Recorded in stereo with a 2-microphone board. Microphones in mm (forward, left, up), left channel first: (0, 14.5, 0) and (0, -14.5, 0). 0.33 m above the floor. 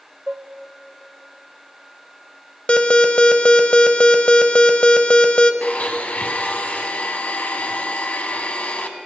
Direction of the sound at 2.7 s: 40° left (ahead or behind).